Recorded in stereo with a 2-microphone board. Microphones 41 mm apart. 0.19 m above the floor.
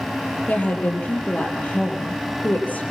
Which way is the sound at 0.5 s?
35° left (ahead or behind).